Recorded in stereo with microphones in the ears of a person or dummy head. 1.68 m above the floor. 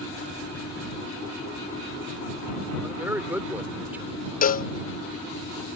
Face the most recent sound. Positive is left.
turn(degrees=35)  # may be behind; listen again after turning